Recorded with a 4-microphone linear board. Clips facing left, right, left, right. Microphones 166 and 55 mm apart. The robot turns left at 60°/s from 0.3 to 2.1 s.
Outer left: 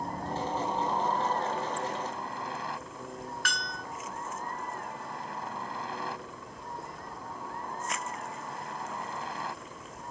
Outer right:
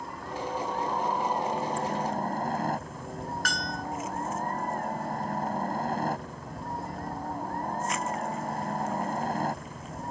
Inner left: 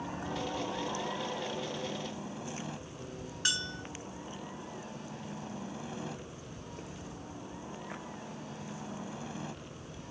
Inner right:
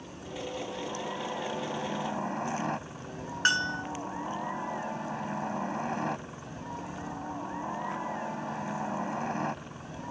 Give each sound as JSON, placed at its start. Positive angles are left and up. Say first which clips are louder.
{"t": 0.0, "sound": "a helicopter", "louder": "outer left 2 dB, inner left 3 dB", "azimuth_deg": 45}
{"t": 3.5, "sound": "a bell", "louder": "outer right 5 dB, inner right 10 dB", "side_deg": -45}